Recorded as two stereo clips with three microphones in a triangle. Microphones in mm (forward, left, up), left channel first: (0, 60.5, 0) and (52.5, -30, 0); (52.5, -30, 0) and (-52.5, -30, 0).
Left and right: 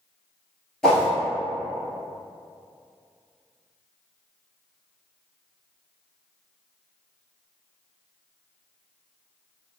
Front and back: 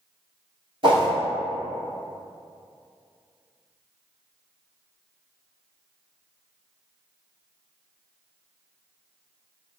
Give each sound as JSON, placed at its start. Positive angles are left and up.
{"t": 0.8, "sound": "a whoosh", "azimuth_deg": -160, "distance_m": 1.0}